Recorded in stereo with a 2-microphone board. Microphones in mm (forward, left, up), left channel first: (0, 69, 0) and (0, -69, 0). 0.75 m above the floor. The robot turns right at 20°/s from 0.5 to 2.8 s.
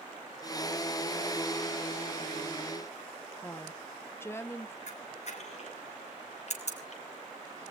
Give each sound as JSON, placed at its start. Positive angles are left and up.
{"t": 3.4, "sound": "a woman speaking", "side_deg": 20, "distance_m": 1.0}
{"t": 4.9, "sound": "a camera shutter", "side_deg": 55, "distance_m": 3.0}